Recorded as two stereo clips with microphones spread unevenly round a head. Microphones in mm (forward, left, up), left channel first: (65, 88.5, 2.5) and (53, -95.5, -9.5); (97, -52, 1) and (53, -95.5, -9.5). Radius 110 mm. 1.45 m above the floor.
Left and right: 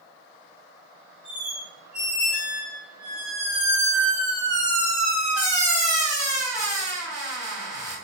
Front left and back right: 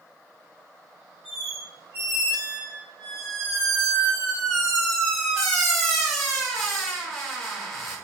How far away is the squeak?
About 1.3 m.